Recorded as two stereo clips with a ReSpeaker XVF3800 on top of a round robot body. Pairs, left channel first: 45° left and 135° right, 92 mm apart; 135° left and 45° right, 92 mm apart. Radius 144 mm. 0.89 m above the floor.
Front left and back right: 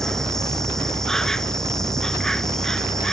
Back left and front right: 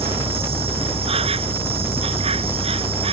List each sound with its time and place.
0.0 s an insect: 40° right